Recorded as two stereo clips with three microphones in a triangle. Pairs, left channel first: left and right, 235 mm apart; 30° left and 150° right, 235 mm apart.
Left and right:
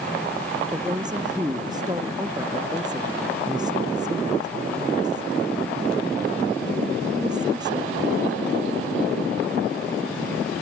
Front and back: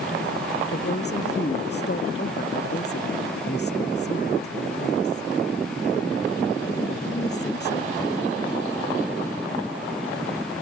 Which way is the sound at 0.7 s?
15° right.